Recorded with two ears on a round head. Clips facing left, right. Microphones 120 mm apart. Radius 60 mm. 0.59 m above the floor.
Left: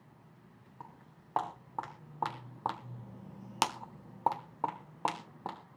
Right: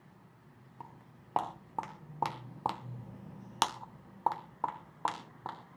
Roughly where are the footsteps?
Centre.